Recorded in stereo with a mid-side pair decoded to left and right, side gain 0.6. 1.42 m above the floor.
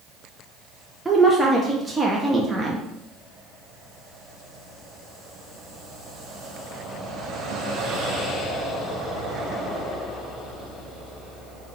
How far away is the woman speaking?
About 0.7 m.